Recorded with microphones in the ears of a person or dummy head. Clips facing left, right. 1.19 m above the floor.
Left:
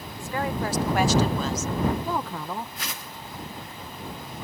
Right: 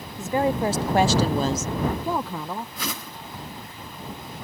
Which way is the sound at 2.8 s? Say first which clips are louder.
Right 5 dB; 85° right.